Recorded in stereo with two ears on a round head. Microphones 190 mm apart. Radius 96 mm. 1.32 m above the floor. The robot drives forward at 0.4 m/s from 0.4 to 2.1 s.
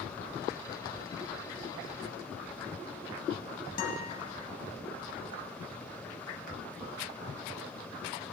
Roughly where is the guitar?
Left.